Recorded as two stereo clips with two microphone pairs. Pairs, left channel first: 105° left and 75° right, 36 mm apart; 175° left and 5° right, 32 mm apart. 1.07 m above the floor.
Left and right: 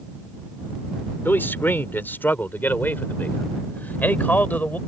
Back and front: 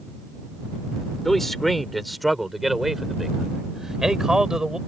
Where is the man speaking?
100° left; by 4.8 s 70° left.